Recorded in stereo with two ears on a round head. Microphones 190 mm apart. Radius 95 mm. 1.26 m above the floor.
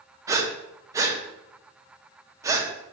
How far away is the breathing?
About 0.5 m.